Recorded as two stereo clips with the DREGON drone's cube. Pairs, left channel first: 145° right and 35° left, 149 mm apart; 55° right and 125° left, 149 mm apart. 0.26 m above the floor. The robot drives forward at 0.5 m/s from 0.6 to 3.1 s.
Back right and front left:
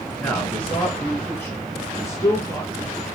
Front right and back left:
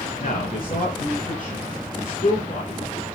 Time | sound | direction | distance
0.2 | a man speaking | 65° right | 4 m